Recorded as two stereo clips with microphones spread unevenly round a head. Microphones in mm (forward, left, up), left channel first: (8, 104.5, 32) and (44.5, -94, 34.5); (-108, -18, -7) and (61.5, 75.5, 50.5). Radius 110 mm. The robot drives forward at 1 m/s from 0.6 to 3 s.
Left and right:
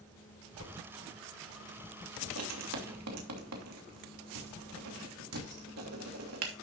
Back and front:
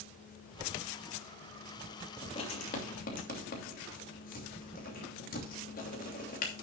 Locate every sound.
0.6 s a whoosh: 90° left, 4 m
2.2 s writing: 80° right, 3 m; by 6.5 s 95° right, 2.5 m